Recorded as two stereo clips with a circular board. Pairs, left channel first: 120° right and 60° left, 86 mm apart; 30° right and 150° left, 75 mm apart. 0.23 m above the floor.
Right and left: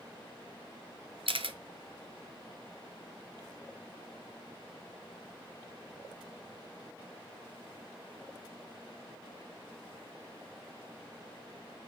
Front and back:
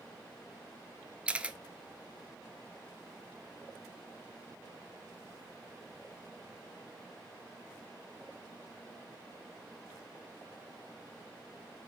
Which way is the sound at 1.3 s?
75° left.